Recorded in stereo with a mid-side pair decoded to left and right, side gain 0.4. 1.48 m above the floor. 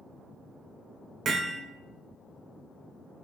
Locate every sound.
1.2 s hammering: 65° right, 1.2 m